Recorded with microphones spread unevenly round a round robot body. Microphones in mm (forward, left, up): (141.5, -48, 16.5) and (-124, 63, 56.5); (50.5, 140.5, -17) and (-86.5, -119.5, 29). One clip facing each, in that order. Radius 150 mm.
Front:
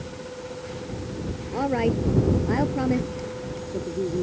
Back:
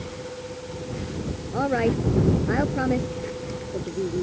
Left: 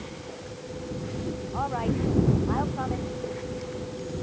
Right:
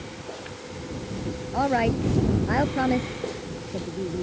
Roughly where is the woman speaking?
Right.